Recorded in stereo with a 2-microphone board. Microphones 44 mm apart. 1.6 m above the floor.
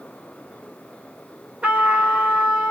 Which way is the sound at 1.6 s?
25° right (ahead or behind).